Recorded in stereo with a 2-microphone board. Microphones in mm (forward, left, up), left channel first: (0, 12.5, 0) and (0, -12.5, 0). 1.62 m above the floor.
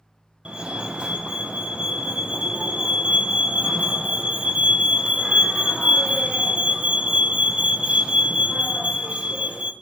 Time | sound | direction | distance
0.5 | a fire alarm | 40° right (ahead or behind) | 0.7 m